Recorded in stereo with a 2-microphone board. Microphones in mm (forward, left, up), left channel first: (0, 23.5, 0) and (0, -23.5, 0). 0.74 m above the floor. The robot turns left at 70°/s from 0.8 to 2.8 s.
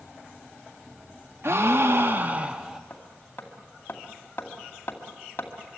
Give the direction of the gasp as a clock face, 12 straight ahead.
3 o'clock.